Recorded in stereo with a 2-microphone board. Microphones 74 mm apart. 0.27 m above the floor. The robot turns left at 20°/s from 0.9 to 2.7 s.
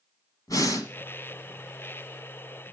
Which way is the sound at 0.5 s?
55° left (ahead or behind).